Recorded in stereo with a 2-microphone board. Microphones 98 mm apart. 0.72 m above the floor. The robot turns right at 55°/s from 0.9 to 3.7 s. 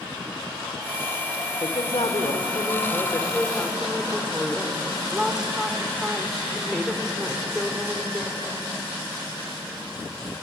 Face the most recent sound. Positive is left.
turn(degrees=-175)